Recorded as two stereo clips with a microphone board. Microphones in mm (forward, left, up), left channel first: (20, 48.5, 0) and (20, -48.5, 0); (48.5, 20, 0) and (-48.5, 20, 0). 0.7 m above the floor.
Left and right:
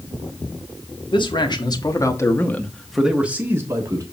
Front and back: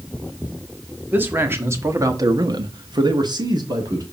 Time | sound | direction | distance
1.1 | a man speaking | 110° left | 1.5 m